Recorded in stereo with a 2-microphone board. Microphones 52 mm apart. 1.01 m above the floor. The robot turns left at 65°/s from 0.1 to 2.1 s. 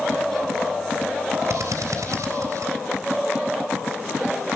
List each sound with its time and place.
1.5 s a drill: 60° right (ahead or behind), 3.5 m; by 2.7 s 80° right, 3.5 m